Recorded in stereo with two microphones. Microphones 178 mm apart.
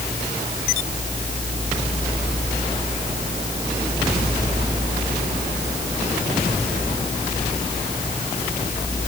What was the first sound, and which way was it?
Only background noise.